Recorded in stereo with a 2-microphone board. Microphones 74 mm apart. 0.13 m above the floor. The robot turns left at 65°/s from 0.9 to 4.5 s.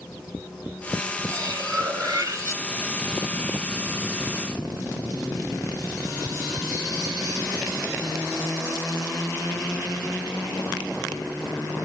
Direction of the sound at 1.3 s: 50° right.